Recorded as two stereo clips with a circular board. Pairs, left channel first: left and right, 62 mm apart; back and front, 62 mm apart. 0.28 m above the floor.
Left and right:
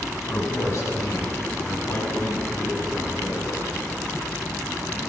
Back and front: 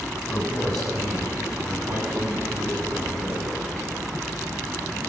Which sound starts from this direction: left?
A man speaking, at 0.3 s.